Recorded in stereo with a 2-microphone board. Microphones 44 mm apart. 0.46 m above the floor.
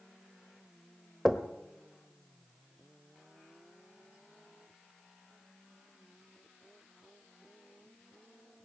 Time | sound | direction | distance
1.2 | knocking | 5° right (ahead or behind) | 1.0 m